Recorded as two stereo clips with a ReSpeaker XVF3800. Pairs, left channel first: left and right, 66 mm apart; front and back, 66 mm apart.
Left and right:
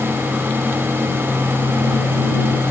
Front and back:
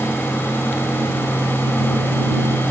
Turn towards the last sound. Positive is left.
No sound to turn to.